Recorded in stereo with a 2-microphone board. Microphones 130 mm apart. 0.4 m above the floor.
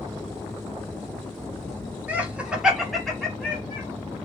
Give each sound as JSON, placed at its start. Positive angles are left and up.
{"t": 2.1, "sound": "laughter", "side_deg": -10, "distance_m": 1.3}